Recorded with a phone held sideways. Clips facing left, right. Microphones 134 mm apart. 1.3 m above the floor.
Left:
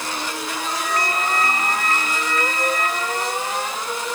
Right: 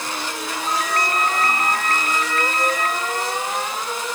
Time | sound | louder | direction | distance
0.7 | a ringtone | right 2 dB | 55° right (ahead or behind) | 4.5 m